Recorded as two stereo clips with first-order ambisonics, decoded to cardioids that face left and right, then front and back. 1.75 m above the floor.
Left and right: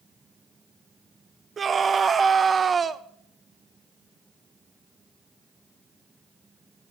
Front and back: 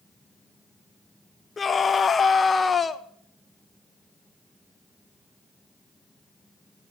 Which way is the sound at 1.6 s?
45° right.